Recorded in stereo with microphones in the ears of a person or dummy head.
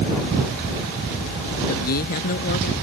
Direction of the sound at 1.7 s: 50° left (ahead or behind).